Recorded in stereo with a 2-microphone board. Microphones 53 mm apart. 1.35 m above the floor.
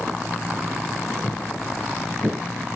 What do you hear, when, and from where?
1.2 s footsteps: 10° left (ahead or behind), 1.5 m; by 2.4 s centre (ahead or behind), 1.3 m